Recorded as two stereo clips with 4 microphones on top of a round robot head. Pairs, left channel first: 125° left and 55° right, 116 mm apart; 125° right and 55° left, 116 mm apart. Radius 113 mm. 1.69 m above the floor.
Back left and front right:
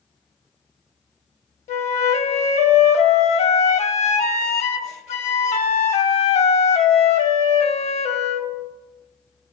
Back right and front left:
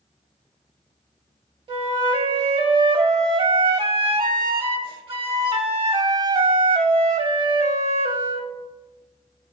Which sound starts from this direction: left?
A flute, at 1.7 s.